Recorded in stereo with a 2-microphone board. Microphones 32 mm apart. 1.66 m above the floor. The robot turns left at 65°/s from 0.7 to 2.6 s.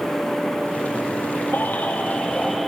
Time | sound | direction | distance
1.5 | a baby crying | 80° left | 7 m